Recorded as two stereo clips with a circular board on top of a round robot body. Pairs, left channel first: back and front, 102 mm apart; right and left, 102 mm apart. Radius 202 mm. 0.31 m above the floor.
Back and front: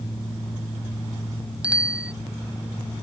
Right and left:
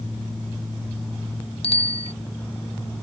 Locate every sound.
1.6 s a bicycle bell: 80° right